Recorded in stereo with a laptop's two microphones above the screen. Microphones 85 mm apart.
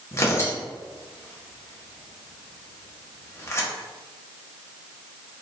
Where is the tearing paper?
35° left (ahead or behind), 1.2 m.